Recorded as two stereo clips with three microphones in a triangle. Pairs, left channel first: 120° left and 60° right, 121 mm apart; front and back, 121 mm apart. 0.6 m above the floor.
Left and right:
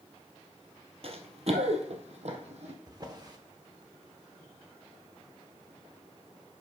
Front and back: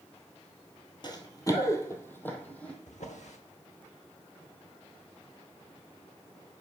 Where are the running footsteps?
45° right, 0.9 m; by 2.7 s 80° right, 1.6 m.